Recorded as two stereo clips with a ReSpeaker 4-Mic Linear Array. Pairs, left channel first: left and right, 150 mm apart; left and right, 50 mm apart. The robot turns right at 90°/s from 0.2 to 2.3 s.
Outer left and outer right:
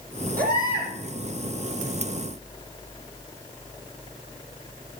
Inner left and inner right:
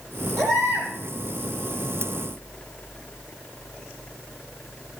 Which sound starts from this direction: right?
A baby crying, at 0.4 s.